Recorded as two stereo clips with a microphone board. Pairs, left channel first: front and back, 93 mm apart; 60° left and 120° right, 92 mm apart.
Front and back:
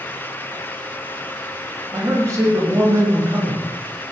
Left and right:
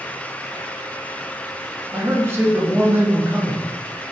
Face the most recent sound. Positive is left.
turn(degrees=-165)